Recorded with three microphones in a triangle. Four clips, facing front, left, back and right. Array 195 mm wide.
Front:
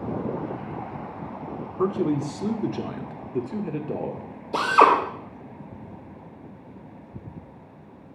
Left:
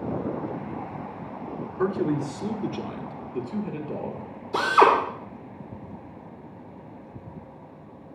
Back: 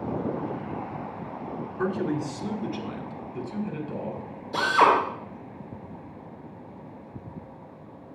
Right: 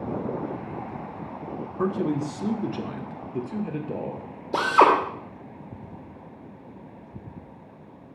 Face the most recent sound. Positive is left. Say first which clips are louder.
# even, front 3 dB
turn(degrees=-75)